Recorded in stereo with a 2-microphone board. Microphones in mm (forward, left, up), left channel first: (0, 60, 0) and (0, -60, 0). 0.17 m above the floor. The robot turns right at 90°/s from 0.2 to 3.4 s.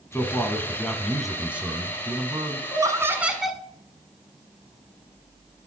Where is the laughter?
65° right, 1.2 m; by 3.6 s 5° right, 1.2 m.